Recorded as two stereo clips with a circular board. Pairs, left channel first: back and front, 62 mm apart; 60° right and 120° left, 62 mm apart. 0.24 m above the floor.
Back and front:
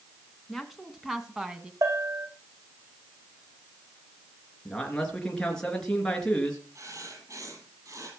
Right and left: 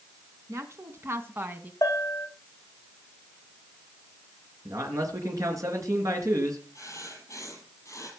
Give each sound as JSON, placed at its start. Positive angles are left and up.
{"t": 0.5, "sound": "a woman speaking", "azimuth_deg": 90, "distance_m": 2.0}
{"t": 1.8, "sound": "a bell", "azimuth_deg": -25, "distance_m": 3.0}
{"t": 4.7, "sound": "a man speaking", "azimuth_deg": 100, "distance_m": 3.0}
{"t": 6.8, "sound": "writing", "azimuth_deg": -25, "distance_m": 6.5}